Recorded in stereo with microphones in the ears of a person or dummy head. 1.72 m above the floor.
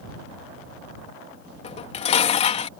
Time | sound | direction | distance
1.6 | dishes clattering | 35° left (ahead or behind) | ?